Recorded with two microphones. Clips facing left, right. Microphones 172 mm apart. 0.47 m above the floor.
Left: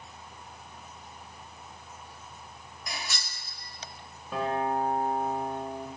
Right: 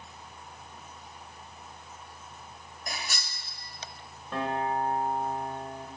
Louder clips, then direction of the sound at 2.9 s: Right 1 dB; 45° right (ahead or behind).